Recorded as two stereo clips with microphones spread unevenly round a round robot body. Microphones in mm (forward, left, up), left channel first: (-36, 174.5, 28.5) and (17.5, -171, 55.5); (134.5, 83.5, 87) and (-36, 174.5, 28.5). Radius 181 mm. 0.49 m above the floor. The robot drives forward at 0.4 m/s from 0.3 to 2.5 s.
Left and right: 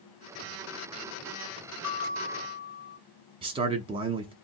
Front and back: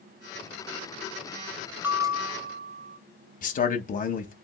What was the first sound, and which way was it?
A bell, 70° left.